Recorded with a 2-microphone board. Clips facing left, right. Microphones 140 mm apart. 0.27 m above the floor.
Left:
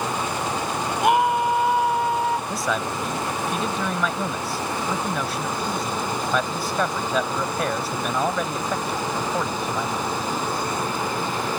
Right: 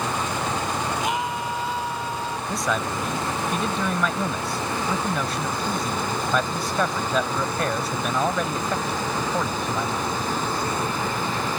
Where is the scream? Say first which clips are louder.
Left 7 dB; 65° left (ahead or behind); by 2.4 s 75° left (ahead or behind).